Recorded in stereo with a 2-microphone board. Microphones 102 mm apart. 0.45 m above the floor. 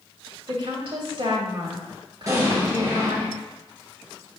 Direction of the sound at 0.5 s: 65° right (ahead or behind).